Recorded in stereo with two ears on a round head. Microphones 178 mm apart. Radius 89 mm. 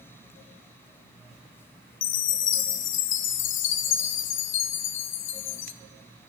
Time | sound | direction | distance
2.0 | a chime | 65° left (ahead or behind) | 0.7 m